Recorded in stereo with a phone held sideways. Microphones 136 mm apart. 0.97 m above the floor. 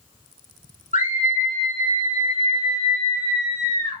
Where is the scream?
65° left (ahead or behind), 3 m; by 4.0 s 35° left (ahead or behind), 4.5 m.